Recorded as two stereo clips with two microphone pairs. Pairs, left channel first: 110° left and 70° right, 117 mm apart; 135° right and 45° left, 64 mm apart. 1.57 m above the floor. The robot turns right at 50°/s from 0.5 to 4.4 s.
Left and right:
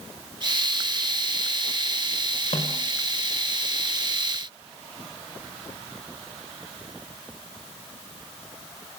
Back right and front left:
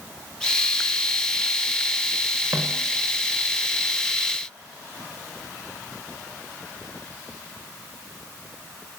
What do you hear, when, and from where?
2.5 s a snare drum: 80° left, 6 m; by 2.9 s 95° left, 6 m